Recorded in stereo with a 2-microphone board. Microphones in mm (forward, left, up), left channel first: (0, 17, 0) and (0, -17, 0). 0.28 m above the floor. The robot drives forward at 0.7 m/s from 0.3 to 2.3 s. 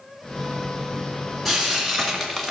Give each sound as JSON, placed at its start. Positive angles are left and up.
{"t": 1.4, "sound": "frying", "side_deg": 0, "distance_m": 2.0}